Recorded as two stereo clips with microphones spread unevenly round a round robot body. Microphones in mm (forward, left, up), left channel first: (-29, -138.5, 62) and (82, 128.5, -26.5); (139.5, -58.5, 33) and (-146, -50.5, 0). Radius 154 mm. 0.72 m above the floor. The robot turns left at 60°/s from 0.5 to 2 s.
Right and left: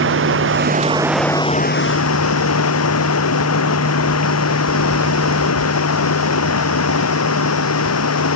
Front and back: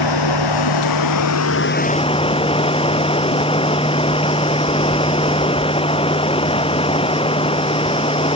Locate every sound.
0.0 s running water: 15° left; by 8.4 s 75° right